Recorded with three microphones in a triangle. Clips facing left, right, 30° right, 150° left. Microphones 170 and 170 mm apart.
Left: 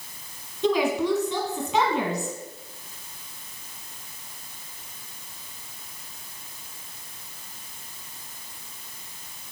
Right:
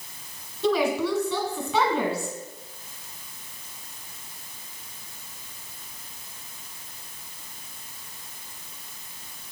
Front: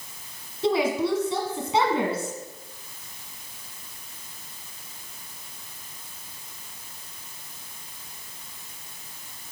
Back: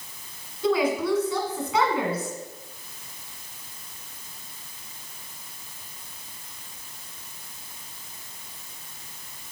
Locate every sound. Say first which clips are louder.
0.6 s a woman speaking: left 1 dB, even; 10° left, 1.2 m